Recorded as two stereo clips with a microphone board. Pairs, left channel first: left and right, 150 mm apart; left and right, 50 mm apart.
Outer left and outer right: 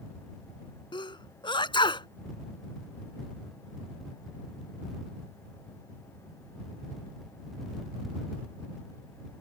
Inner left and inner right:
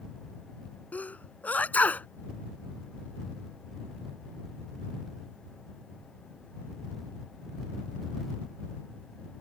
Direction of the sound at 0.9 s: 30° left (ahead or behind).